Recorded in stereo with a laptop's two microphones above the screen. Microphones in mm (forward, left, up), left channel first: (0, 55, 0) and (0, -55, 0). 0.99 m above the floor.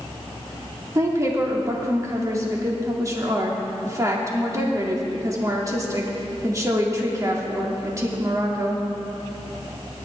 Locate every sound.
0.9 s a woman speaking: 30° right (ahead or behind), 2.5 m